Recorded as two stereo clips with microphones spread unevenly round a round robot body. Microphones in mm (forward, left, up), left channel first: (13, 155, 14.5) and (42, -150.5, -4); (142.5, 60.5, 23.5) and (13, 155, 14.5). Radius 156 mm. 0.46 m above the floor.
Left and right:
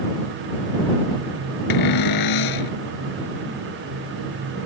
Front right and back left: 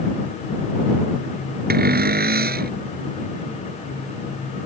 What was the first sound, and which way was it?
A cupboard door, 120° left.